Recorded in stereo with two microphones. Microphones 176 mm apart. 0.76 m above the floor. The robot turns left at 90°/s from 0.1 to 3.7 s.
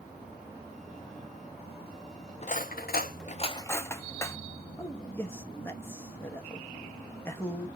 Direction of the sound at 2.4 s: 40° left (ahead or behind).